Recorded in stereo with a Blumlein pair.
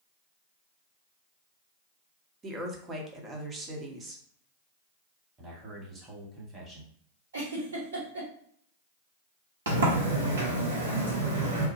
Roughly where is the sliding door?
Ahead right.